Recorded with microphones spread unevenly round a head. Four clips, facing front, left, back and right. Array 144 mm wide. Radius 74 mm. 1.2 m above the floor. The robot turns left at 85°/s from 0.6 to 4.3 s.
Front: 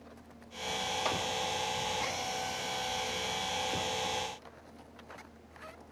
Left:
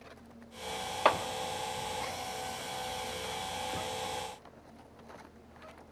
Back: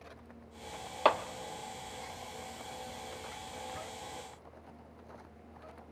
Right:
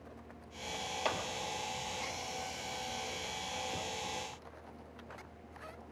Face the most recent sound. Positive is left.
turn(degrees=-135)